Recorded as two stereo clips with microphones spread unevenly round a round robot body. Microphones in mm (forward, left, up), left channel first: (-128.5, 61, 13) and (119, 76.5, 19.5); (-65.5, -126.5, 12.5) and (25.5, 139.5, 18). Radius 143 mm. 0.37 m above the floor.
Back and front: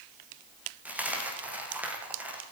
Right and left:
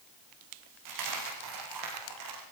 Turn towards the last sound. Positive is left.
turn(degrees=90)